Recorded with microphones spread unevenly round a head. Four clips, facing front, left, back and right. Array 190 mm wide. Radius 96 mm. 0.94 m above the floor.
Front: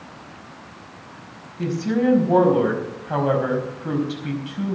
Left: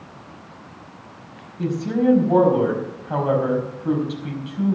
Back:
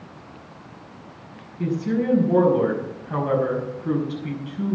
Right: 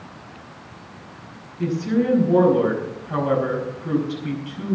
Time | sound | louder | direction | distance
1.6 | a woman speaking | even, front 2 dB | 35° left | 5 m